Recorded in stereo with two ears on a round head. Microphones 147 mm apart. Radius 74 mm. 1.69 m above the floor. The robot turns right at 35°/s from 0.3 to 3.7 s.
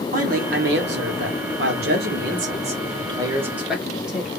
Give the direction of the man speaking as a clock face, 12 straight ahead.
4 o'clock.